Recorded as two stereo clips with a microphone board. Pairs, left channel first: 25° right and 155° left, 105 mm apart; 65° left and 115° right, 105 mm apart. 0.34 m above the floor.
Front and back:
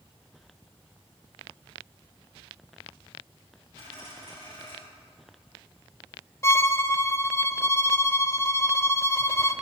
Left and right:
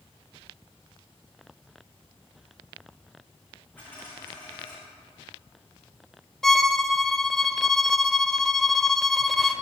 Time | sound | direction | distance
3.8 | a dropped coin | 140° left | 5 m
6.4 | a violin | 15° right | 0.6 m